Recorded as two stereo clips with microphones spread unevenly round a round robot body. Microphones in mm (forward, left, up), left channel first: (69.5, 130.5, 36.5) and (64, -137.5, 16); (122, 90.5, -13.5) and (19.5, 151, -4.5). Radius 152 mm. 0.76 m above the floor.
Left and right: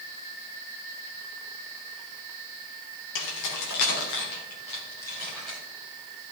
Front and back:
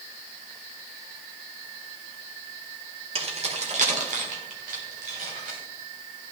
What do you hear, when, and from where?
3.1 s keys jangling: 110° left, 1.8 m; by 5.6 s straight behind, 2.5 m